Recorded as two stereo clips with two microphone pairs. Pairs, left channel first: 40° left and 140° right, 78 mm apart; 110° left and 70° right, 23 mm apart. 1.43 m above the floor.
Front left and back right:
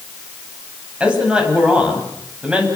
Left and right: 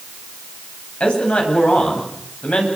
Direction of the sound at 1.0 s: 140° left.